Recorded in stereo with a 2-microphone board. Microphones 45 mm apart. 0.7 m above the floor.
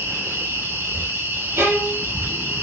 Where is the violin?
75° right (ahead or behind), 5 m.